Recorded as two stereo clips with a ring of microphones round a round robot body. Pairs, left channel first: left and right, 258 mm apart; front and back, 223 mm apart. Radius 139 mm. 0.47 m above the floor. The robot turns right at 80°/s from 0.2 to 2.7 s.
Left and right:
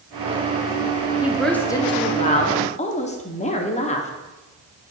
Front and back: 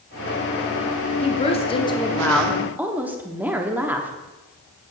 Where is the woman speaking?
15° right, 0.9 m; by 4.1 s 105° left, 0.9 m.